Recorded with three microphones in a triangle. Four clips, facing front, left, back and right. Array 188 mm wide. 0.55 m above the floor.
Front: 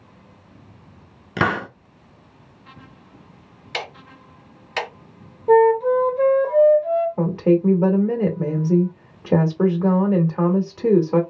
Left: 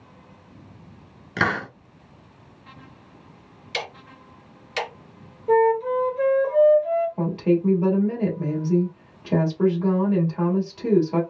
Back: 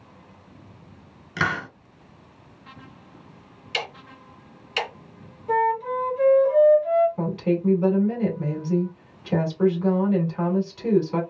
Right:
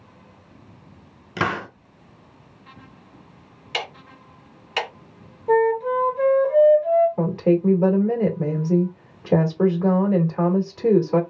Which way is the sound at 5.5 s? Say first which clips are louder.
Even, front 8 dB; straight ahead.